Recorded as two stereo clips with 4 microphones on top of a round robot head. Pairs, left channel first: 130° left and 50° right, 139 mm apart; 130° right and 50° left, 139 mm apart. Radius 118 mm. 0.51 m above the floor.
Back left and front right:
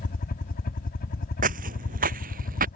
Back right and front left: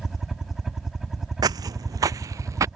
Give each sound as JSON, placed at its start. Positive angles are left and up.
{"t": 0.0, "sound": "a helicopter", "azimuth_deg": 135}
{"t": 1.4, "sound": "footsteps", "azimuth_deg": -15}